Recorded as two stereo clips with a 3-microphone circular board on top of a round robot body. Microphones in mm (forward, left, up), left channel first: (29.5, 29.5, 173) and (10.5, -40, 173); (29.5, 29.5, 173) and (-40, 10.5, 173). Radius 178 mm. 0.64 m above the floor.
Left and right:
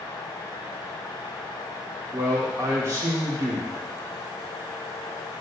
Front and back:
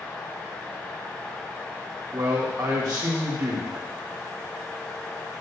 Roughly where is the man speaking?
Behind right.